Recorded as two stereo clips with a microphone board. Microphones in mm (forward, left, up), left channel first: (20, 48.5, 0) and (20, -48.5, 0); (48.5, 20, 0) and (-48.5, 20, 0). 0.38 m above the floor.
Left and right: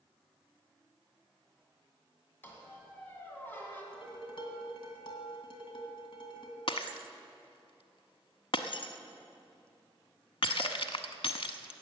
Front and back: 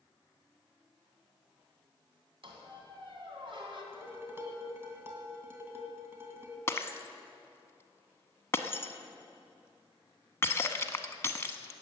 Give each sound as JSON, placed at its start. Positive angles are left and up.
{"t": 2.4, "sound": "a squeak", "azimuth_deg": 160, "distance_m": 2.5}
{"t": 3.9, "sound": "dishes clattering", "azimuth_deg": 115, "distance_m": 2.0}
{"t": 6.7, "sound": "breaking glass", "azimuth_deg": 65, "distance_m": 0.8}